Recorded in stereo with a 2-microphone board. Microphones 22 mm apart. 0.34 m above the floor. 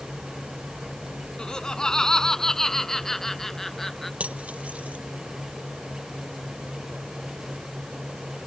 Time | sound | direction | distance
1.4 | laughter | 40° left (ahead or behind) | ?
4.2 | cutlery clinking | 80° right | ?